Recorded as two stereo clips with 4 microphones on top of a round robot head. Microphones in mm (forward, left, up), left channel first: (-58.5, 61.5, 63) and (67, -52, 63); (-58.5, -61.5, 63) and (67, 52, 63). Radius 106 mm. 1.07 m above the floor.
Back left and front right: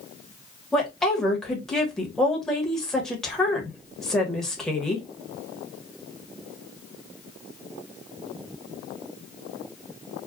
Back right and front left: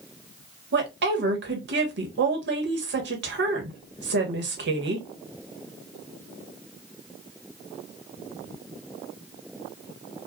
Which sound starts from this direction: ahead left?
A woman speaking, at 0.7 s.